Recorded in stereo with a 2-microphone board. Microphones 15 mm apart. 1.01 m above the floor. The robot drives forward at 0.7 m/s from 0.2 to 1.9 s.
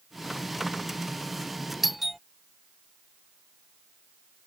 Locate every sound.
1.8 s a doorbell: 10° right (ahead or behind)